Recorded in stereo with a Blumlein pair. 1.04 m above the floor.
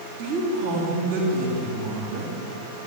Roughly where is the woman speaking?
Ahead right.